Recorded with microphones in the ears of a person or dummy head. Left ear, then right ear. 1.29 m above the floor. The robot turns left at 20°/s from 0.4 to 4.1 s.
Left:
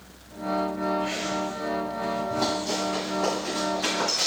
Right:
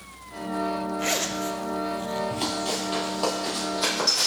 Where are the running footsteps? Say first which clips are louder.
Left 1 dB; 35° right (ahead or behind), 1.6 m; by 4.3 s 70° right (ahead or behind), 3.5 m.